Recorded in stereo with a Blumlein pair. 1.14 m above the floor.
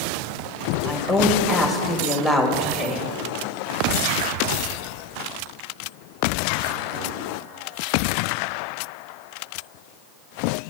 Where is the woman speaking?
Straight ahead, 1.9 m.